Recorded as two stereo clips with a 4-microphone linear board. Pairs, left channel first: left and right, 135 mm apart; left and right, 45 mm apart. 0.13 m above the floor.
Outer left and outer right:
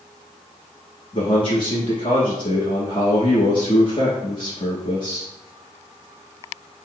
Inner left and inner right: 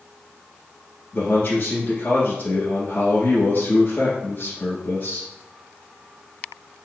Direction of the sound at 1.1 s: 40° left (ahead or behind).